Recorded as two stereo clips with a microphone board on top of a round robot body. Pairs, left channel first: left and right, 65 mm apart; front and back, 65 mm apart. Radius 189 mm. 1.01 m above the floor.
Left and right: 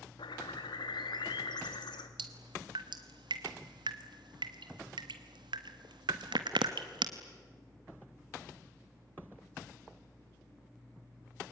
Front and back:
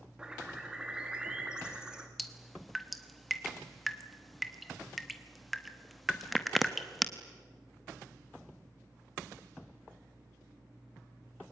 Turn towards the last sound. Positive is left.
turn(degrees=-90)